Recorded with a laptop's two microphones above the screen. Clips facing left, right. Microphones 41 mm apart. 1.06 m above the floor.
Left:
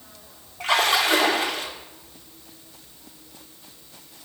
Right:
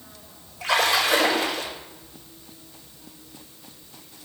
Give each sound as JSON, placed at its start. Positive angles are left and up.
{"t": 0.6, "sound": "a splash", "side_deg": 80, "distance_m": 3.5}